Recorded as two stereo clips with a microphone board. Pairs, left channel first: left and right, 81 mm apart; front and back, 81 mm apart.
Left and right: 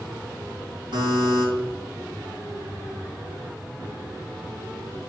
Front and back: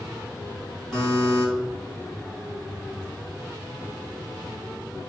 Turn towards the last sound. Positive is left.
turn(degrees=-85)